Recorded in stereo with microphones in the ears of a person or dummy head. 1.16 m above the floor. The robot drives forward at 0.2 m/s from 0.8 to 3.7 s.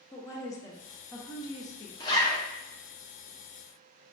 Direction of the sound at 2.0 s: 20° left (ahead or behind).